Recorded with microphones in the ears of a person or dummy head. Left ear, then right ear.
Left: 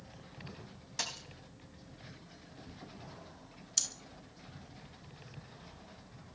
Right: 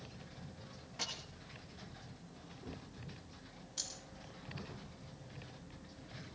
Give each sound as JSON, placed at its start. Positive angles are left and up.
{"t": 1.0, "sound": "a dropped coin", "side_deg": 75, "distance_m": 3.0}
{"t": 3.8, "sound": "breathing", "side_deg": 70, "distance_m": 1.6}